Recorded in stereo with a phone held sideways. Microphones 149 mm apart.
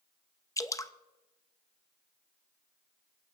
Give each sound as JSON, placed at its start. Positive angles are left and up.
{"t": 0.6, "sound": "dripping", "side_deg": 20, "distance_m": 0.6}